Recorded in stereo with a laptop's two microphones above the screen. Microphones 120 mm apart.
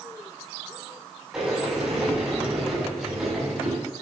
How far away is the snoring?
No snoring in this recording.